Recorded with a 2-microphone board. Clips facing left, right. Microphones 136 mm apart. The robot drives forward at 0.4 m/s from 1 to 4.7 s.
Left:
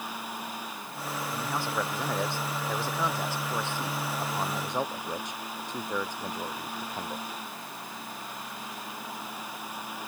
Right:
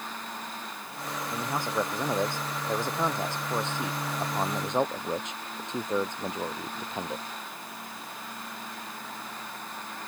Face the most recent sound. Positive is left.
turn(degrees=-20)  # may be behind; listen again after turning